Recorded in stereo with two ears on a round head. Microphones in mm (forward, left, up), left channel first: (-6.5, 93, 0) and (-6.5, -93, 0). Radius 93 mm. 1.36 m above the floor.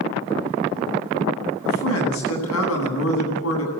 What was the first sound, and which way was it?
A man speaking, 80° left.